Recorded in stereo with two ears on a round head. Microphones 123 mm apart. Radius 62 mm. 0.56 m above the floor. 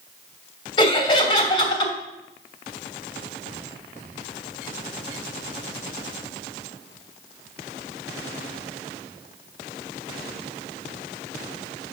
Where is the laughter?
40° left (ahead or behind), 3 m.